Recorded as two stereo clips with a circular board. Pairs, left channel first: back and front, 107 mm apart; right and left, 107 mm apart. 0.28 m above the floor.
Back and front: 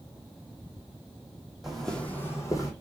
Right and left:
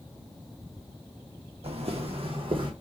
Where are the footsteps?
85° left, 0.8 m; by 2.7 s 125° left, 0.9 m.